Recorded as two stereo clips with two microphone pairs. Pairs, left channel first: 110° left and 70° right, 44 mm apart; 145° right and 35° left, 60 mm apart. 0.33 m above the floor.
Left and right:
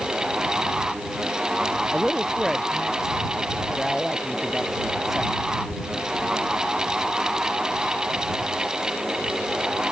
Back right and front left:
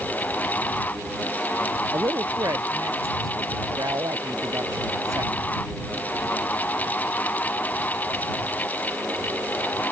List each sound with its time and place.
1.9 s a woman speaking: 15° left